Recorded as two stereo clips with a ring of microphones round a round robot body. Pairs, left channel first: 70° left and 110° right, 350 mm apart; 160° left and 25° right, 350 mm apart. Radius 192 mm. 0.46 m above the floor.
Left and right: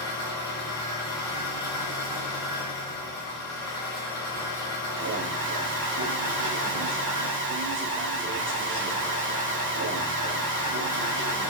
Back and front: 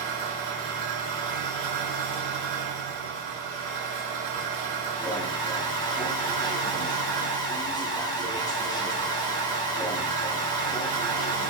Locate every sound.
0.0 s an engine running: 15° right, 1.4 m
5.0 s an alarm: 130° right, 0.6 m